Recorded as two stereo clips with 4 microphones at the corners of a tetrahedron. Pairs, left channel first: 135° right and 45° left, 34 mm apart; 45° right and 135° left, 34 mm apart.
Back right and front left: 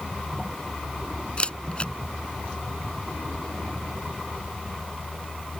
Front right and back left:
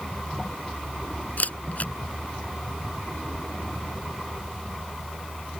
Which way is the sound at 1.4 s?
75° right.